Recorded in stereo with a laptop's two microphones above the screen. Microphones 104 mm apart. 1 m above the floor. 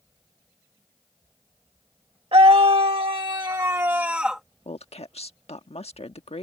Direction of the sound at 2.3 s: 65° right (ahead or behind).